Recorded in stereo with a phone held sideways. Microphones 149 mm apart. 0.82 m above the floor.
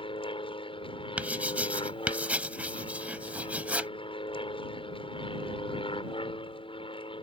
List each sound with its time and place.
0.0 s an aircraft: 35° left (ahead or behind)
1.2 s writing: 10° right (ahead or behind)